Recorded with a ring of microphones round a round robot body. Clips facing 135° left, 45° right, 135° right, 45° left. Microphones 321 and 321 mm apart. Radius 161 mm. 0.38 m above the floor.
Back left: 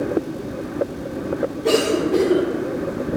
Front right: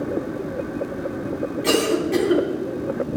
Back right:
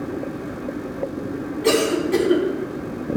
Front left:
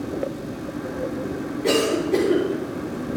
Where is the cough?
80° right, 4.5 m.